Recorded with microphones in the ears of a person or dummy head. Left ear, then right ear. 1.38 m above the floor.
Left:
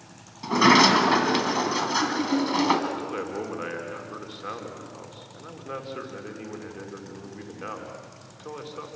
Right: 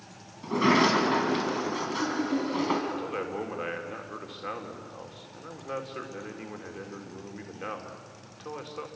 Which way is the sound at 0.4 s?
35° left (ahead or behind).